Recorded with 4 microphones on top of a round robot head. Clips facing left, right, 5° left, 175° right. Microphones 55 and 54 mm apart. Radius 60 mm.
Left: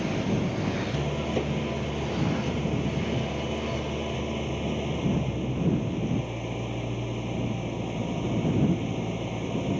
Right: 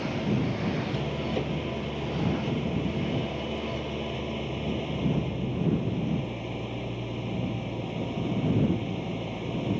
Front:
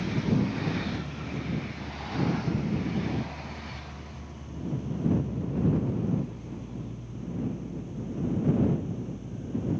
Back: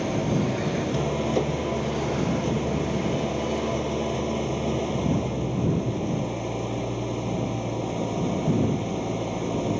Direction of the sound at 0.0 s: 175° left.